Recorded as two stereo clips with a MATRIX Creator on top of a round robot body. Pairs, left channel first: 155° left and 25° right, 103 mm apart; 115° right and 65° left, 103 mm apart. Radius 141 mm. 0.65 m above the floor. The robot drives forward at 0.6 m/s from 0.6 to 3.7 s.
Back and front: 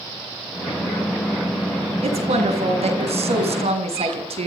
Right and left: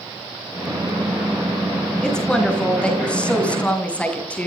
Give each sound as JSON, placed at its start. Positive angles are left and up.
{"t": 2.0, "sound": "a woman speaking", "azimuth_deg": -30, "distance_m": 8.0}